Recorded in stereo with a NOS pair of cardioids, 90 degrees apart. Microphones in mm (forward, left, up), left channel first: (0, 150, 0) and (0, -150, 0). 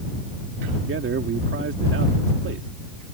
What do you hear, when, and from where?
0.8 s a man speaking: 45° right